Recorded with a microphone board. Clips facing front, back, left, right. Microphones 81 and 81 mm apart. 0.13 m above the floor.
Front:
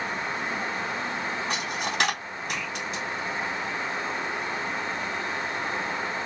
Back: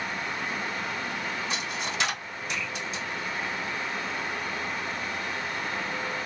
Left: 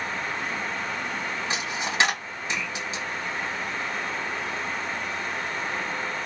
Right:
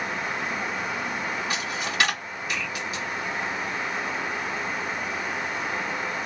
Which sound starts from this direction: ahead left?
A dropped coin, at 1.5 s.